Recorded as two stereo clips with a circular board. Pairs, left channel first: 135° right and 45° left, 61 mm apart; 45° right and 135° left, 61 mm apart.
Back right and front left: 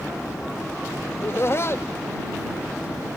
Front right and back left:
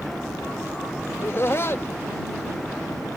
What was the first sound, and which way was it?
Laughter, 90° right.